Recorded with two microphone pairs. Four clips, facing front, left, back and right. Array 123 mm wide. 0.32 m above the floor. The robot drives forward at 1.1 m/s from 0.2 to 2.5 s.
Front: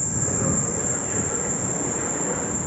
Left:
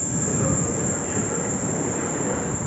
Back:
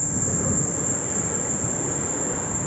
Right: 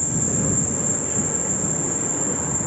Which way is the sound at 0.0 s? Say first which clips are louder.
Left 1 dB, front 1 dB; 145° left.